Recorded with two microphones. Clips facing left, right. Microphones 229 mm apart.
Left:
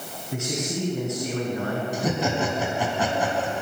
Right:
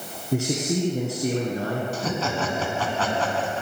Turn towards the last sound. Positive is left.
turn(degrees=15)  # may be behind; listen again after turning